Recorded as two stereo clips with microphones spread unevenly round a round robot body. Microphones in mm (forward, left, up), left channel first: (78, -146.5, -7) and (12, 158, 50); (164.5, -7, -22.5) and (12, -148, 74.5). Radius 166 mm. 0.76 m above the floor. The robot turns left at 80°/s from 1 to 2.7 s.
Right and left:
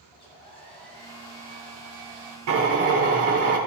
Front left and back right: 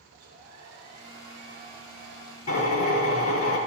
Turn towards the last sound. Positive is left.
turn(degrees=50)